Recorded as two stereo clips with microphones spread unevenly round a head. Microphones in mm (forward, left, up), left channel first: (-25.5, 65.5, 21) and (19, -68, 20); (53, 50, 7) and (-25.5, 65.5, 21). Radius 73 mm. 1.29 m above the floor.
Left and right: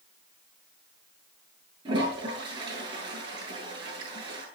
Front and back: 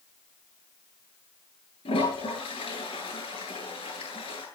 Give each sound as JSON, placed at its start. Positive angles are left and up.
{"t": 1.9, "sound": "a toilet flushing", "azimuth_deg": -10, "distance_m": 9.5}